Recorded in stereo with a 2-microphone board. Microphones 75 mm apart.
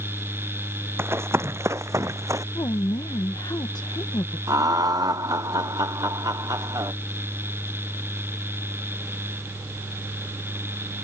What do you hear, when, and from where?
1.0 s running footsteps: 35° right (ahead or behind); by 2.5 s 45° right (ahead or behind)
2.5 s a woman speaking: 60° left (ahead or behind)
4.5 s laughter: 55° right (ahead or behind)